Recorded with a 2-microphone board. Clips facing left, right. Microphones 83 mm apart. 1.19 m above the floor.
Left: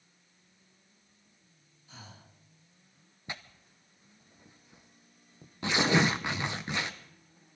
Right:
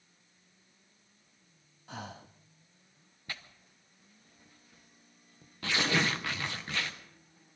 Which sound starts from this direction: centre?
Tearing paper, at 3.3 s.